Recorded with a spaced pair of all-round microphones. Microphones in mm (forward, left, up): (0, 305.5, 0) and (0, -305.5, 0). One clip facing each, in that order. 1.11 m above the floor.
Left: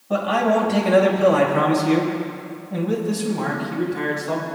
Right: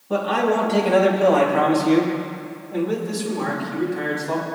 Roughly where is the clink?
No clink in this recording.